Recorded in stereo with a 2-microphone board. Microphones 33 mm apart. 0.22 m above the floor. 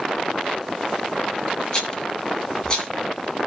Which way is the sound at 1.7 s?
25° left (ahead or behind).